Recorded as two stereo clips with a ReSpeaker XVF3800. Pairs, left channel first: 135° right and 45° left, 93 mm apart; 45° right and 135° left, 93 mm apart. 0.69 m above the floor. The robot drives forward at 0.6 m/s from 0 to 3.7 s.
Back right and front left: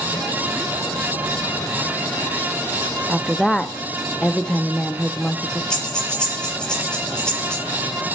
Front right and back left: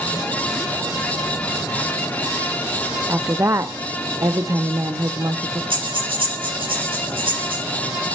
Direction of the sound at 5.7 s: 145° left.